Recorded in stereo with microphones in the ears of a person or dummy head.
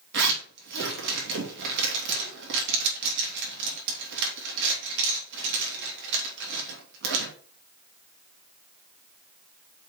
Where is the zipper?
65° right (ahead or behind), 2.5 m.